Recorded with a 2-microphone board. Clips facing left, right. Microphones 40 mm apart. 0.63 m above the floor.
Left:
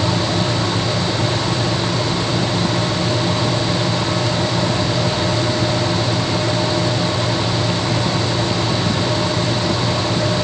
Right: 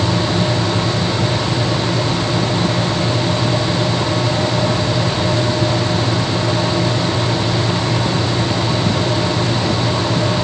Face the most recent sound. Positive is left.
No sound to turn to.